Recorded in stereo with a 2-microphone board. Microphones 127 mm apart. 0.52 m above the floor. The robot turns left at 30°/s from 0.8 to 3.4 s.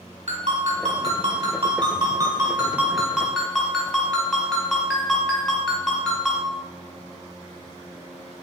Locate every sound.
0.3 s a ringtone: 105° right, 1.6 m; by 6.5 s 175° left, 1.6 m